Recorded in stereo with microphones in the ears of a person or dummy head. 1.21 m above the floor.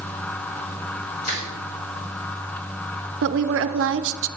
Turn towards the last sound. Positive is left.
turn(degrees=-60)  # may be behind; listen again after turning